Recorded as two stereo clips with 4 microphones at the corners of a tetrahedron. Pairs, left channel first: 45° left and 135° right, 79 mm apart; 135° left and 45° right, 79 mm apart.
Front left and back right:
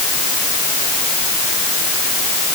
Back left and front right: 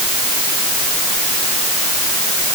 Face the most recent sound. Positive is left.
No sound to turn to.